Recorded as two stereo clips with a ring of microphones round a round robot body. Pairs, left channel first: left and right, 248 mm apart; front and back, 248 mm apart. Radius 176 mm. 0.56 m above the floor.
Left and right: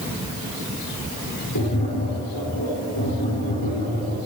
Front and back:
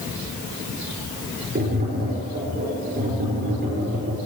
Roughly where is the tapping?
Behind left.